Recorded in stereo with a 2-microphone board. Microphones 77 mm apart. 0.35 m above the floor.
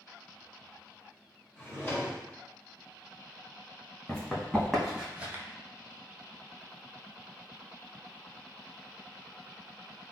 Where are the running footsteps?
10° left (ahead or behind), 1.4 m; by 5.4 s 30° right (ahead or behind), 0.5 m.